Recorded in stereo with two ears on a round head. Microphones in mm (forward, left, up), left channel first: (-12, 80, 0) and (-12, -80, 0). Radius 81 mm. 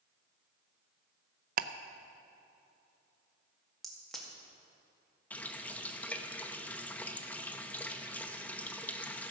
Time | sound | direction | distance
1.6 | ticking | 50° right (ahead or behind) | 0.5 m
3.8 | a crack | centre (ahead or behind) | 2 m
5.3 | a running tap | 10° left (ahead or behind) | 0.7 m